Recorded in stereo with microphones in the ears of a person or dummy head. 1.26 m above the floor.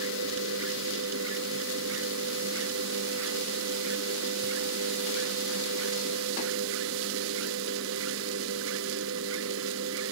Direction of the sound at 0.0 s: 85° right.